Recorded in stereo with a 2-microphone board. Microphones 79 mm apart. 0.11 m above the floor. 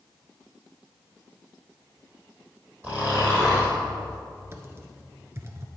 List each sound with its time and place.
2.8 s snoring: 20° right (ahead or behind), 4.5 m
4.5 s typing on a keyboard: 30° right (ahead or behind), 1.2 m